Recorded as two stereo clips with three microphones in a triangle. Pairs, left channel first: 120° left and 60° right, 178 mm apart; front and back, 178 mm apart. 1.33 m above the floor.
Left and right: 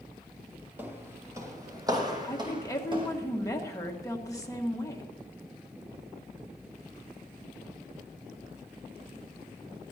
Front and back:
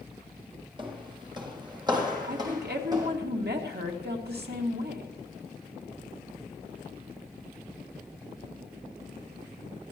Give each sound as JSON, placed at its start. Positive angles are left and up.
{"t": 0.8, "sound": "footsteps", "azimuth_deg": -135, "distance_m": 1.7}
{"t": 2.2, "sound": "a woman speaking", "azimuth_deg": -170, "distance_m": 1.9}